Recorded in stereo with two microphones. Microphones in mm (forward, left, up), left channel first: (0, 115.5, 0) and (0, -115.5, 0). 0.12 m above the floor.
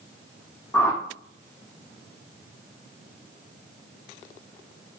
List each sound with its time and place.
0.7 s a whoosh: 10° left (ahead or behind), 1.2 m